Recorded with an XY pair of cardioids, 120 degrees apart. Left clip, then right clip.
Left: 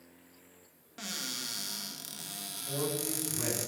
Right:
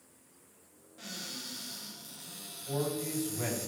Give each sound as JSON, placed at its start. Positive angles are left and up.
{"t": 1.0, "sound": "a cupboard door", "azimuth_deg": 65, "distance_m": 0.7}
{"t": 2.7, "sound": "a man speaking", "azimuth_deg": -20, "distance_m": 1.7}